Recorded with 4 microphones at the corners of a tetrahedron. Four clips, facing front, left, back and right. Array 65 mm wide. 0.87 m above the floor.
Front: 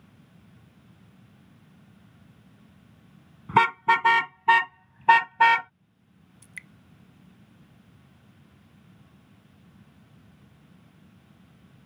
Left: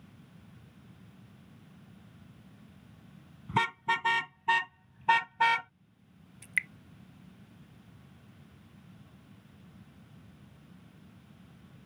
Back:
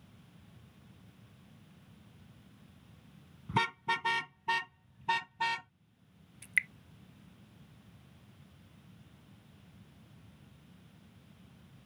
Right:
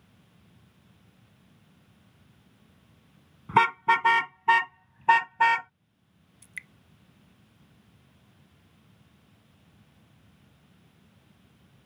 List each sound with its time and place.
3.5 s a car horn: 40° right; by 5.7 s 15° right
6.4 s dripping: 135° left